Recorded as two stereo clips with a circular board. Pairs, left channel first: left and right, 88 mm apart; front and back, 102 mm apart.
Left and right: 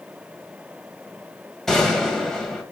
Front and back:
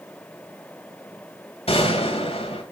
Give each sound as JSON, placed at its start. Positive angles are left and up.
{"t": 1.7, "sound": "a gunshot", "azimuth_deg": 5, "distance_m": 2.5}